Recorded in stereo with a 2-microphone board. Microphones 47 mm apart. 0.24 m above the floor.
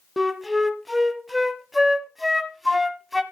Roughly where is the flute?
Centre.